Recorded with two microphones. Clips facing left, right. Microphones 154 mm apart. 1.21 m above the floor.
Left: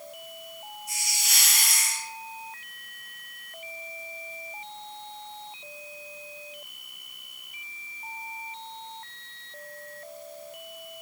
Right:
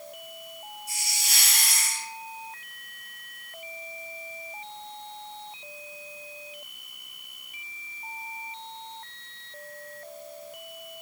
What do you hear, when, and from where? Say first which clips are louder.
0.9 s a hiss: even; 30° right (ahead or behind), 1.2 m